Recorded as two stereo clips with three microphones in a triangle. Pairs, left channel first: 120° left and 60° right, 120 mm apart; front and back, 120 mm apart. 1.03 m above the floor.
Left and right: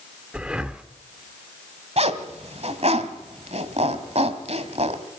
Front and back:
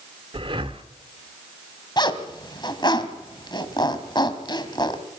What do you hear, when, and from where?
0.3 s breathing: 140° right, 1.2 m
2.0 s a zipper: 45° right, 1.7 m